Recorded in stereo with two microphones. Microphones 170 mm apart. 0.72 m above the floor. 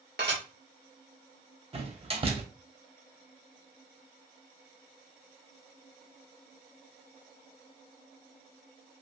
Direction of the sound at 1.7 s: 35° right (ahead or behind).